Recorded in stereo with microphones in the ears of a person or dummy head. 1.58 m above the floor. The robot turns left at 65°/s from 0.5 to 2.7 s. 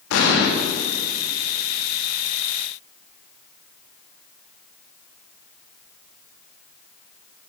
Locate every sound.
0.1 s an explosion: 70° left (ahead or behind), 2 m